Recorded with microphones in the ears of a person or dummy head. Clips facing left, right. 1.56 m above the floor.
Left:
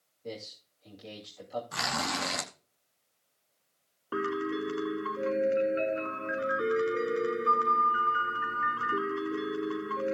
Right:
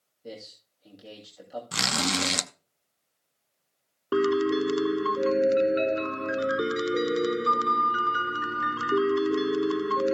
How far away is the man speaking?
About 3 m.